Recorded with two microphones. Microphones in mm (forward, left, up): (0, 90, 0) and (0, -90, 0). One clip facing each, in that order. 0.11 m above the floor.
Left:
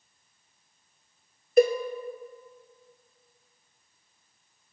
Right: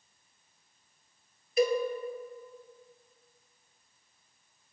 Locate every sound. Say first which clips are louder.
1.6 s a cowbell: left 6 dB; 60° left (ahead or behind), 0.7 m